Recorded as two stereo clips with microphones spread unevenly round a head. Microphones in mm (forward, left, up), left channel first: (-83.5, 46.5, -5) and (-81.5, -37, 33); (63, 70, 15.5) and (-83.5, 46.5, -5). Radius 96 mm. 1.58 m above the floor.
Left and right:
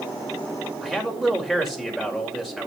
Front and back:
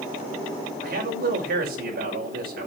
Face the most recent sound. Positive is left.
turn(degrees=-175)